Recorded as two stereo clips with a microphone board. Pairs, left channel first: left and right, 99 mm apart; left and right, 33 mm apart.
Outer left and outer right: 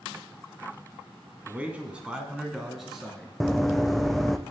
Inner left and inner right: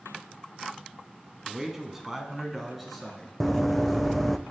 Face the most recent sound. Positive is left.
turn(degrees=0)  # may be behind; listen again after turning